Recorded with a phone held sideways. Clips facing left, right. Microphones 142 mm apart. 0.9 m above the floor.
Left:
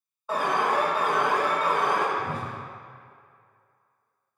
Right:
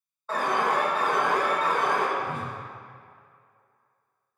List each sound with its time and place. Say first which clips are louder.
0.3 s an alarm: left 1 dB; 10° left (ahead or behind), 1.4 m
2.2 s a whoosh: even; 35° left (ahead or behind), 0.9 m